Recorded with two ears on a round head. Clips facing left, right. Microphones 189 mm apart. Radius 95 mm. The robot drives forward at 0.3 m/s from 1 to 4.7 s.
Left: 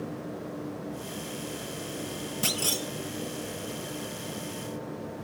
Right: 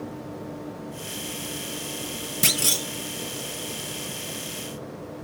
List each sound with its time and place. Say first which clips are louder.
2.4 s a clunk: right 3 dB; 25° right (ahead or behind), 0.6 m; by 2.9 s 20° right (ahead or behind), 0.8 m